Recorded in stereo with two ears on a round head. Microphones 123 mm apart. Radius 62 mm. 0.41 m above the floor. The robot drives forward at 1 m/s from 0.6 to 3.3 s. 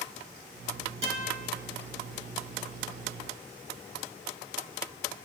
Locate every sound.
1.0 s a guitar: 50° right (ahead or behind), 3 m; by 1.5 s 45° right (ahead or behind), 3.5 m